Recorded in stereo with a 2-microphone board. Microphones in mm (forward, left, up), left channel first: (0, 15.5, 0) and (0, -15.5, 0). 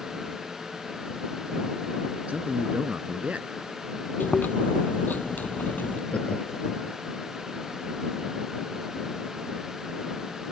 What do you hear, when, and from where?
2.3 s a man speaking: 50° right (ahead or behind)
4.2 s chewing: 90° left
6.1 s laughter: 45° left (ahead or behind)